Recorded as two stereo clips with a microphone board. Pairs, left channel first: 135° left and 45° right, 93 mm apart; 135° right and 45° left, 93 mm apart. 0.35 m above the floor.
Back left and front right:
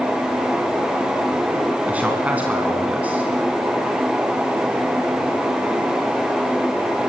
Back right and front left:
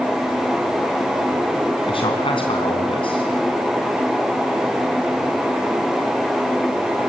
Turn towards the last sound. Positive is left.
turn(degrees=-120)